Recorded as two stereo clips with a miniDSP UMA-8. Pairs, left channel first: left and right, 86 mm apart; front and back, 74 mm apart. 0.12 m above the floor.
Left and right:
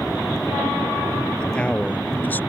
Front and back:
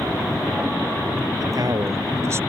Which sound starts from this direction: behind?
A man speaking, at 1.4 s.